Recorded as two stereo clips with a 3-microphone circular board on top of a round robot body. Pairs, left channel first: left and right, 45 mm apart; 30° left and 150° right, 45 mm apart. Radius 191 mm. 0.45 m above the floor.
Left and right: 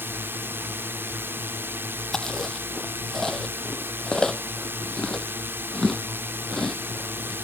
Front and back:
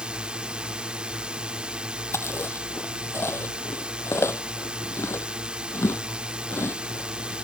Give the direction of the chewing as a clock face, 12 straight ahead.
12 o'clock.